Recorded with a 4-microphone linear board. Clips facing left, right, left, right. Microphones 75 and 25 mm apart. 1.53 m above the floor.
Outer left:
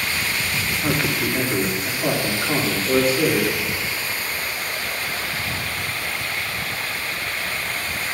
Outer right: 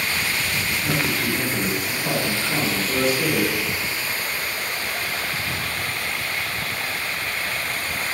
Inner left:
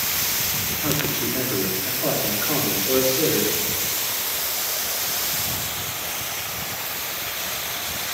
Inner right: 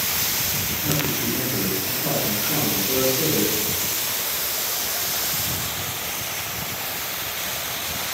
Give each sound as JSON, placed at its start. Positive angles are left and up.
{"t": 0.8, "sound": "a man speaking", "side_deg": 55, "distance_m": 5.0}